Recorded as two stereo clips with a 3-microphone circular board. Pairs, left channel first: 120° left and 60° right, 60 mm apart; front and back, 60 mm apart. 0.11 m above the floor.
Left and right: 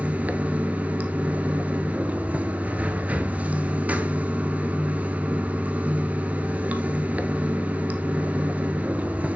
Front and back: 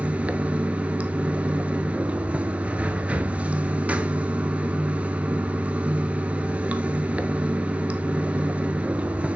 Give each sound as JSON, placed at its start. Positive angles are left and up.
{"t": 0.0, "sound": "running water", "azimuth_deg": -115, "distance_m": 0.7}